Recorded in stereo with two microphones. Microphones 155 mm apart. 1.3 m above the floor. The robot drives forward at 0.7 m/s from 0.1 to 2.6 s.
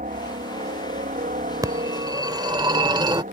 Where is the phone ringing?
25° right (ahead or behind); by 3.2 s 30° right (ahead or behind).